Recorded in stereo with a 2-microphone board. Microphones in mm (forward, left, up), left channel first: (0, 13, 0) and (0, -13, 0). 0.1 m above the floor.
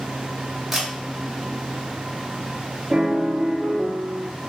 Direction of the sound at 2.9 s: 60° right (ahead or behind).